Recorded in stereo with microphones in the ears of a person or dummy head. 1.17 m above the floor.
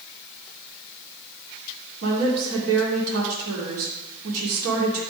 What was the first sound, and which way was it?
A woman speaking, 80° right.